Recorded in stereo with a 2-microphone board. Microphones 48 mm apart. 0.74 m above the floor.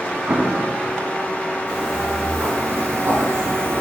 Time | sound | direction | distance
0.3 | an explosion | 35° right (ahead or behind) | 0.9 m
1.7 | footsteps | 70° right (ahead or behind) | 4 m